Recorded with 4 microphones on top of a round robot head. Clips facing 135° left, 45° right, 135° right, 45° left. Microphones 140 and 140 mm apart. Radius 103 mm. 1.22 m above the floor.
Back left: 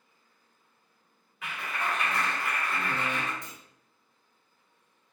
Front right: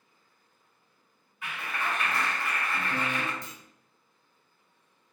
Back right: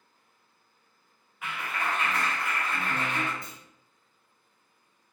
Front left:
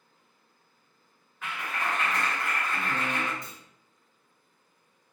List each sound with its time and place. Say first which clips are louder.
1.4 s a clap: even, even; 145° left, 1.6 m
3.4 s a clunk: front right 1 dB, even; 50° right, 0.5 m